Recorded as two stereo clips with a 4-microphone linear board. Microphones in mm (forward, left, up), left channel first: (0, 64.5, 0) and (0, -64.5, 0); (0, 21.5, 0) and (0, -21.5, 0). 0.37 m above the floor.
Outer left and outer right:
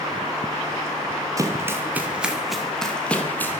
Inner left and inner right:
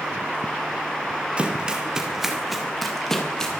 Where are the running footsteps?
25° right (ahead or behind), 4 m; by 3.6 s 15° left (ahead or behind), 5 m.